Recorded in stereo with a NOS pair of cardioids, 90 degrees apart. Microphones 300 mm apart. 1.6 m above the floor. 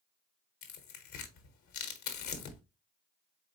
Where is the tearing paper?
70° left, 1.2 m.